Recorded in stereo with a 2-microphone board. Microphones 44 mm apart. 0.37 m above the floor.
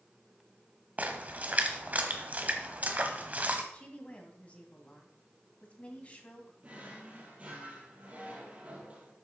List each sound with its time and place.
1.0 s a splash: 35° right (ahead or behind), 1.4 m
3.7 s a woman speaking: 30° left (ahead or behind), 2 m
6.6 s a drawer: 35° right (ahead or behind), 3 m